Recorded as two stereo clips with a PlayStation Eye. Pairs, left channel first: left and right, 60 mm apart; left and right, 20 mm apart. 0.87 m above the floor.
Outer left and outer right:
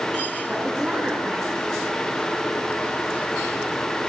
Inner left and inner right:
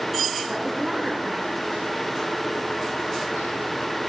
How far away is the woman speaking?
About 5.5 m.